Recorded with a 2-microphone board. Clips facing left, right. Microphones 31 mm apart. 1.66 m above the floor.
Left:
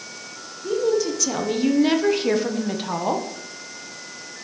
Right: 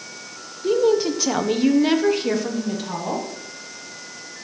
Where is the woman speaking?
40° right (ahead or behind), 1.4 m; by 3.3 s 35° left (ahead or behind), 1.7 m.